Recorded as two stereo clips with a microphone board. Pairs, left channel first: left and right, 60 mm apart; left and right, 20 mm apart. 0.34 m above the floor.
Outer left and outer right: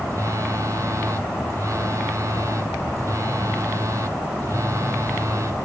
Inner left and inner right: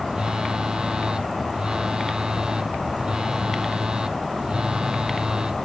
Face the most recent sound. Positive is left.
turn(degrees=-55)  # may be behind; listen again after turning